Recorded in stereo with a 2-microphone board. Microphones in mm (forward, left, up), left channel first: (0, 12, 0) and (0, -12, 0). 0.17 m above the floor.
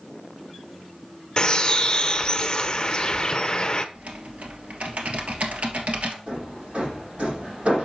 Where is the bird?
30° left (ahead or behind), 0.6 m.